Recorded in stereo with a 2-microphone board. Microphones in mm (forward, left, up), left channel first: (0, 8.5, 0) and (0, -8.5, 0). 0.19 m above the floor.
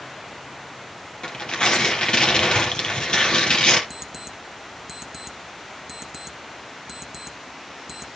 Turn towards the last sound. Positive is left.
turn(degrees=-5)  # may be behind; listen again after turning